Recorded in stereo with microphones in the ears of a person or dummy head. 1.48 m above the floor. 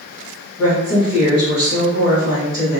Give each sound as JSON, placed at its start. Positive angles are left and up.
{"t": 0.6, "sound": "a woman speaking", "side_deg": 20, "distance_m": 2.0}